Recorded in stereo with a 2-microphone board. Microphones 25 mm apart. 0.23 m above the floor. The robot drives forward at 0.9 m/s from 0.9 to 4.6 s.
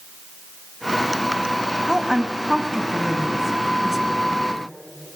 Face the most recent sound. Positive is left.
turn(degrees=-10)  # may be behind; listen again after turning